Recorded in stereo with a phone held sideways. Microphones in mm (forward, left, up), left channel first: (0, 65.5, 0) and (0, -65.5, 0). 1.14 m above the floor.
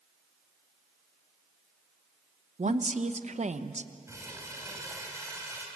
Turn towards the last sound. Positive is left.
turn(degrees=-20)  # may be behind; listen again after turning